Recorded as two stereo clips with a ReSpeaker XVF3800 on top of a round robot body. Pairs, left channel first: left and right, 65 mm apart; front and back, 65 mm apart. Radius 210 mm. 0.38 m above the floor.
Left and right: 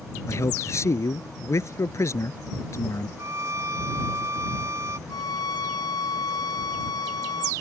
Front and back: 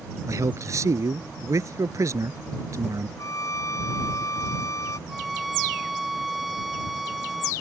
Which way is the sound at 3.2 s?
40° right.